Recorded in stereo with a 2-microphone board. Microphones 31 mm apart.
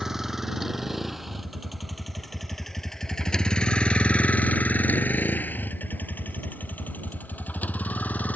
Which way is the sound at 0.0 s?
10° right (ahead or behind).